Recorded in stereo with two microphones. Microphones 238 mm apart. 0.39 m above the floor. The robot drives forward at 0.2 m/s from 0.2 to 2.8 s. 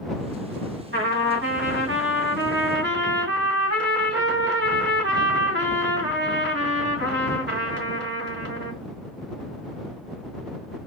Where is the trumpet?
55° right (ahead or behind), 2.5 m; by 8.8 s 50° right (ahead or behind), 3 m.